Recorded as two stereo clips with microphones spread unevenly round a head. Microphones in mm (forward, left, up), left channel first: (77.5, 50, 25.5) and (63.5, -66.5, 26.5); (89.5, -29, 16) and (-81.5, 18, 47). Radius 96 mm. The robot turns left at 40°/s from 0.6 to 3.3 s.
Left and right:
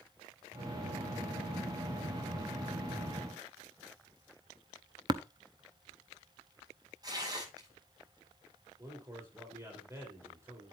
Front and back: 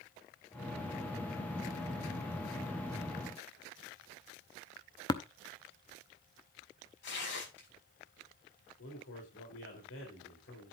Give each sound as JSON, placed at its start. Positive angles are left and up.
{"t": 5.1, "sound": "tapping", "azimuth_deg": -85, "distance_m": 0.6}
{"t": 7.0, "sound": "tearing paper", "azimuth_deg": -40, "distance_m": 7.5}
{"t": 8.8, "sound": "a man speaking", "azimuth_deg": -30, "distance_m": 4.0}